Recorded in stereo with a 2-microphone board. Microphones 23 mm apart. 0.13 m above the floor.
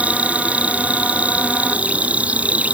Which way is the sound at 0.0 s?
80° right.